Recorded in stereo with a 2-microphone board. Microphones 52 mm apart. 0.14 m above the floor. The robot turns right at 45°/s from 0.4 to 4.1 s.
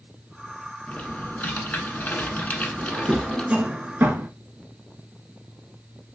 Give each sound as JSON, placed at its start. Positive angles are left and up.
{"t": 0.9, "sound": "typing on a keyboard", "azimuth_deg": 50, "distance_m": 0.8}
{"t": 2.8, "sound": "a drawer", "side_deg": 0, "distance_m": 0.6}